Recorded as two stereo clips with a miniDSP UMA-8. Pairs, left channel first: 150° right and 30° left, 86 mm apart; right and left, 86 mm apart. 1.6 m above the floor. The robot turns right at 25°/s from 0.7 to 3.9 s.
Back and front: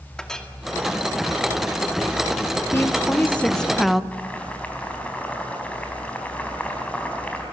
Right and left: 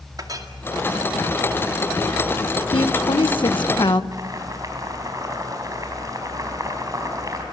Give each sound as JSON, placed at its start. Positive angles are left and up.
{"t": 0.2, "sound": "a clink", "azimuth_deg": 125, "distance_m": 2.0}
{"t": 2.7, "sound": "a woman speaking", "azimuth_deg": -90, "distance_m": 1.3}
{"t": 4.1, "sound": "boiling", "azimuth_deg": 135, "distance_m": 4.0}